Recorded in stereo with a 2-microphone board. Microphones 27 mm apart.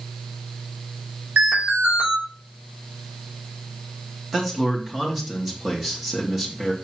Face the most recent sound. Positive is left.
turn(degrees=-10)  # may be behind; listen again after turning